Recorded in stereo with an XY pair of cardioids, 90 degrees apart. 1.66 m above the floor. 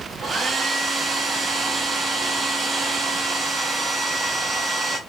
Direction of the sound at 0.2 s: 50° right.